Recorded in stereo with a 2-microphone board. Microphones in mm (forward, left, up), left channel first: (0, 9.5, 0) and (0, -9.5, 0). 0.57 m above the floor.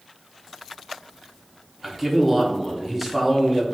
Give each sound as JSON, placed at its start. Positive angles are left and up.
{"t": 1.8, "sound": "a man speaking", "side_deg": -5, "distance_m": 0.9}